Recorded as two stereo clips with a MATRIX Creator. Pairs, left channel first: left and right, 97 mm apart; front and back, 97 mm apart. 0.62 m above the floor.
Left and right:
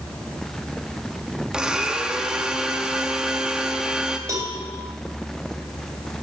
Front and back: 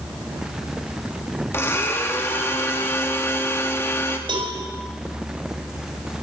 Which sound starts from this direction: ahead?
A blender, at 1.5 s.